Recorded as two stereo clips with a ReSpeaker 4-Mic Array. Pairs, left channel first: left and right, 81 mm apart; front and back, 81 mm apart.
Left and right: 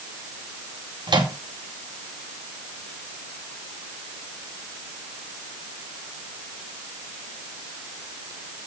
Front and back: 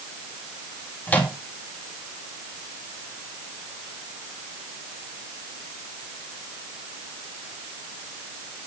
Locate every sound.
1.1 s a microwave: 70° right, 2.5 m